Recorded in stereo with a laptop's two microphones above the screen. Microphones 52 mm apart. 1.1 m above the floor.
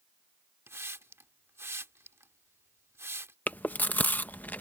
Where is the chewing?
35° left (ahead or behind).